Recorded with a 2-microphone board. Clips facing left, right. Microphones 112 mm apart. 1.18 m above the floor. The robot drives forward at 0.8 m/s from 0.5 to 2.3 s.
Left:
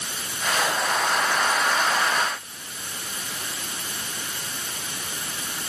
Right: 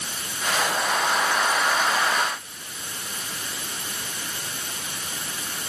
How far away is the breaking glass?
No breaking glass in this recording.